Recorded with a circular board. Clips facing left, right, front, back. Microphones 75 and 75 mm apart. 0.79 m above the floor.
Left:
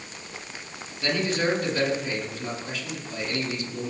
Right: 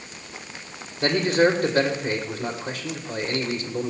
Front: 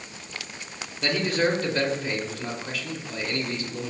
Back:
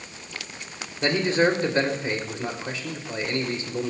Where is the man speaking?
125° right, 2.5 m.